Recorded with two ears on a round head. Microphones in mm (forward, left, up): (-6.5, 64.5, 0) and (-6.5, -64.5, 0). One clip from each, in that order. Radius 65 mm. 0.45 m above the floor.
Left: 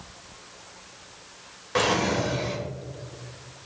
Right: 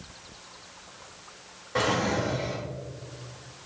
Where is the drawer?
65° left (ahead or behind), 1.2 m.